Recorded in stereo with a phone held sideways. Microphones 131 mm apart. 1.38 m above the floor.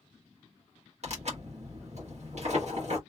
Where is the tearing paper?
60° right (ahead or behind), 1.4 m.